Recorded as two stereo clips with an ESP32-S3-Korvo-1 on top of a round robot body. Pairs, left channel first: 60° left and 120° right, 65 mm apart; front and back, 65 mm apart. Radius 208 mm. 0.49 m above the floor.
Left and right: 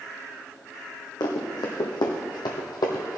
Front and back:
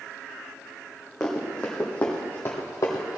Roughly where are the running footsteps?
Left.